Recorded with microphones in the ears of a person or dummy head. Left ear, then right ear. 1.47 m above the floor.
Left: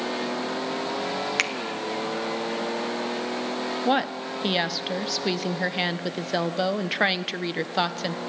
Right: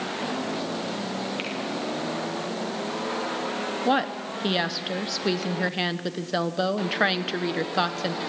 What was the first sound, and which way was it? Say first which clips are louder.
A finger snap: left 7 dB; 60° left (ahead or behind).